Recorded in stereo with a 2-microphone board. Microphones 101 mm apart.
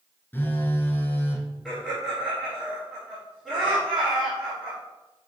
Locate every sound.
0.3 s a phone buzzing: 20° left (ahead or behind), 0.6 m
1.6 s laughter: centre (ahead or behind), 2 m